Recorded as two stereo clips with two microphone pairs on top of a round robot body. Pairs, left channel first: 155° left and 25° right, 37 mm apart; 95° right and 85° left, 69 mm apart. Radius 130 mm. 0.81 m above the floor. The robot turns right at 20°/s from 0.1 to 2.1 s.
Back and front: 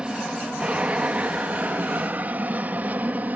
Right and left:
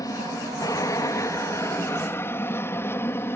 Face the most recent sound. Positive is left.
turn(degrees=-45)